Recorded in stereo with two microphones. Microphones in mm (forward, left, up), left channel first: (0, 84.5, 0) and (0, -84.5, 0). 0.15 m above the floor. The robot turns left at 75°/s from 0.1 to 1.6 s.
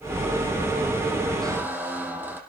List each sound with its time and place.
1.4 s a squeak: 25° right (ahead or behind), 3.5 m; by 2.4 s 15° right (ahead or behind), 3.5 m